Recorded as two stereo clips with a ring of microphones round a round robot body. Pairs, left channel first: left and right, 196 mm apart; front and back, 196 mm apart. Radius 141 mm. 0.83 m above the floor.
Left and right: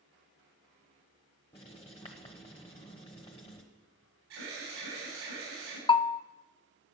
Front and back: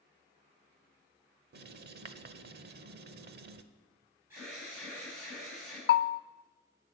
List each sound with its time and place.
1.5 s writing: 160° left, 0.8 m
4.3 s an alarm: 100° right, 6 m
5.9 s a bell: 25° left, 0.5 m